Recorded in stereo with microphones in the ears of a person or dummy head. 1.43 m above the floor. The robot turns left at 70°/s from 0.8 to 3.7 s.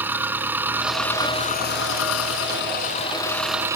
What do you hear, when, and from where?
0.0 s an engine running: 175° right; by 3.8 s 15° right